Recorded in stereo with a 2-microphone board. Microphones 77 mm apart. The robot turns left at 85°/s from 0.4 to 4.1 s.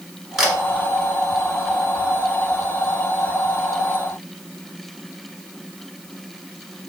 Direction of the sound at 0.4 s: Centre (ahead or behind).